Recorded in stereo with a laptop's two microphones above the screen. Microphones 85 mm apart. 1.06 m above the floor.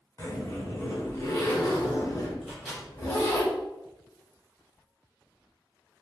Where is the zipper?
35° left (ahead or behind), 1.4 m.